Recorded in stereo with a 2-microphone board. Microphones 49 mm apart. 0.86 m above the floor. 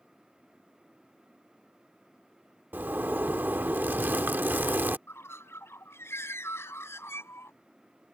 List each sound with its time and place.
2.7 s a zipper: 45° right (ahead or behind)
5.1 s a bird: 65° left (ahead or behind)